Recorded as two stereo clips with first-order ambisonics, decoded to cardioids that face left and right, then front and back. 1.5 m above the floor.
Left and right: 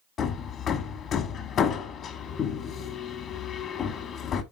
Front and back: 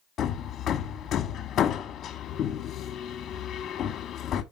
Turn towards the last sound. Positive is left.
turn(degrees=45)